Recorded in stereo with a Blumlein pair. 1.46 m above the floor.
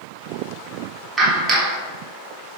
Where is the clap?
15° right, 3 m.